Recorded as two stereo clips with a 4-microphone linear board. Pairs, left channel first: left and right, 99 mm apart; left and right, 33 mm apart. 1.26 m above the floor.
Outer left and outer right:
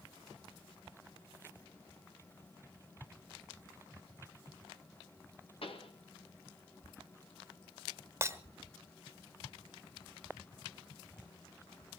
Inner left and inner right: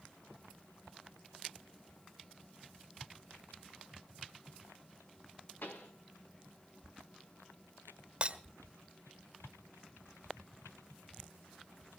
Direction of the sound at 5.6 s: 65° left (ahead or behind).